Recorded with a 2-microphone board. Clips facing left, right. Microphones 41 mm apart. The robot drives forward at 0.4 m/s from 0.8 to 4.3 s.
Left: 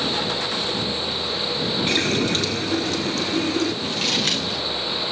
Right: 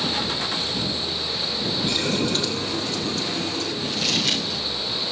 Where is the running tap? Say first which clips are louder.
Left 2 dB; 65° left (ahead or behind), 1.7 m.